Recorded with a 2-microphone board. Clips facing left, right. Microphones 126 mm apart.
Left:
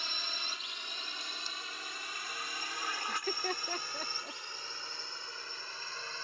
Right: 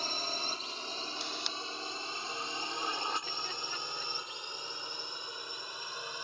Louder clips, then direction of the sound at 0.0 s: Right 6 dB; 40° right (ahead or behind).